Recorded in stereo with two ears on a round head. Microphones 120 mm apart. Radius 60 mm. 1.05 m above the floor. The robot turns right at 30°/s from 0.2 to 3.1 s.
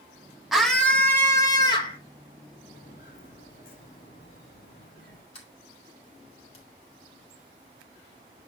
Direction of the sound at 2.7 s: 65° left (ahead or behind).